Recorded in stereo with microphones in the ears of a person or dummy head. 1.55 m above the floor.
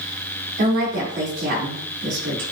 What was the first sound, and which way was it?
A woman speaking, 50° right (ahead or behind).